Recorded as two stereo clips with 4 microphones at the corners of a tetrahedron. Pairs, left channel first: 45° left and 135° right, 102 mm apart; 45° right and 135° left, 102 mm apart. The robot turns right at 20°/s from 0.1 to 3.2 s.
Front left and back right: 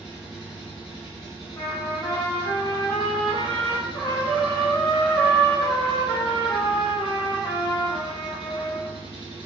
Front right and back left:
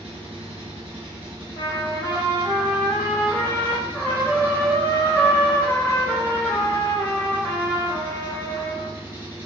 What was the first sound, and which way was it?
An engine running, 135° left.